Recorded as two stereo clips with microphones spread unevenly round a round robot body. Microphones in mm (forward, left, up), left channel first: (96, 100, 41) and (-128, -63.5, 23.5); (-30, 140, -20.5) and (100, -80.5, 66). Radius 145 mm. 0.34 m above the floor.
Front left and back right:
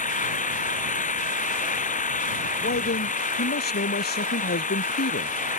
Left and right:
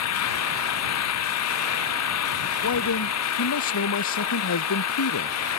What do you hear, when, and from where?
0.0 s an engine running: 100° left
2.6 s a man speaking: 90° left